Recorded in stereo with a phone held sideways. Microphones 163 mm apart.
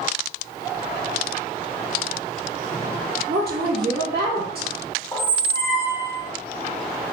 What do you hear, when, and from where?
3.3 s a woman speaking: 85° right, 1.5 m
5.1 s a squeak: 20° left (ahead or behind), 0.8 m